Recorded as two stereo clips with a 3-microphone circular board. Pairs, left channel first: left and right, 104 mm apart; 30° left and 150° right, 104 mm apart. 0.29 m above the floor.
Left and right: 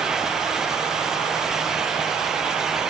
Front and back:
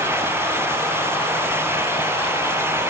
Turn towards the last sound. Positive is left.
No sound to turn to.